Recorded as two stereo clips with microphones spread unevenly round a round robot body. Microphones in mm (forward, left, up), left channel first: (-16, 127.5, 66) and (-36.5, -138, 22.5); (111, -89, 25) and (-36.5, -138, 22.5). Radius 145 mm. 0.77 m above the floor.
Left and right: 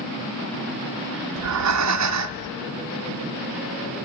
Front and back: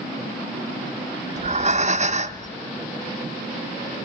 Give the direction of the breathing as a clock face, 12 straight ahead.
4 o'clock.